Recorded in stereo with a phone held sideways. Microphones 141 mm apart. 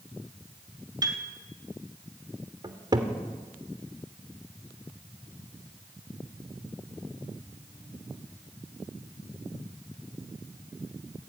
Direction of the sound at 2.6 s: 30° right (ahead or behind).